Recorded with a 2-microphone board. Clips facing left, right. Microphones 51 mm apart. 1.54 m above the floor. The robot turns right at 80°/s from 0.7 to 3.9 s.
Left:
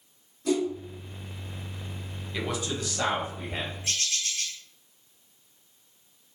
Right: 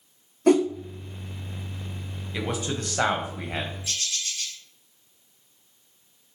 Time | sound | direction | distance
0.5 | a whoosh | 50° right (ahead or behind) | 0.5 m
2.3 | a man speaking | 170° right | 1.1 m
3.8 | a bird | 50° left (ahead or behind) | 1.2 m